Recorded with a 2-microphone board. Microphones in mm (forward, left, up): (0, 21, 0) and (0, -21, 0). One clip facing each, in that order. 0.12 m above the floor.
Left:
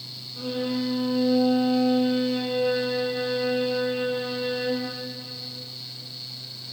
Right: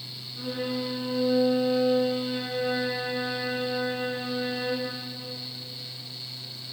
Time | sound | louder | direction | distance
0.4 | a violin | left 3 dB | 45° left (ahead or behind) | 4.5 m